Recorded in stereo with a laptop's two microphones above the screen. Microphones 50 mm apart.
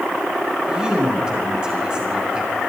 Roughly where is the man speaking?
Centre.